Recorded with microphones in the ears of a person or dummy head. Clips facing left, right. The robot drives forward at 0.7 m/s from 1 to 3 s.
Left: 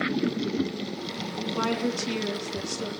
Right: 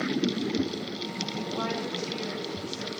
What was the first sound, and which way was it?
A woman speaking, 60° left (ahead or behind).